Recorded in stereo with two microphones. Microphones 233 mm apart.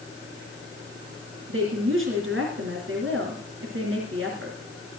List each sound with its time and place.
1.5 s a woman speaking: 60° right (ahead or behind), 3.5 m